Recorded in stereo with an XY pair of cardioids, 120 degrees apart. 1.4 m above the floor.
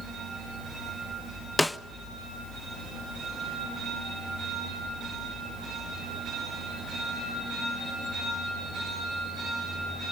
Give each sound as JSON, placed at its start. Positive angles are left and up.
{"t": 1.6, "sound": "a snare drum", "azimuth_deg": 5, "distance_m": 0.6}